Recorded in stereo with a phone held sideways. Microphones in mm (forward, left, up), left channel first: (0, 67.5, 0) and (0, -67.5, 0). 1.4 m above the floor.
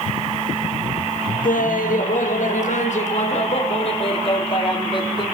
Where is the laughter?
80° left, 1.7 m; by 5.2 s 35° left (ahead or behind), 2.5 m.